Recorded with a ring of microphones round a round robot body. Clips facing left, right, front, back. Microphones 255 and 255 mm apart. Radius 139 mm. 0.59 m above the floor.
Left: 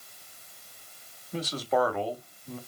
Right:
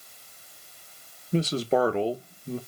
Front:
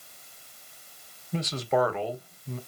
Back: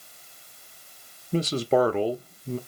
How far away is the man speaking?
About 0.8 m.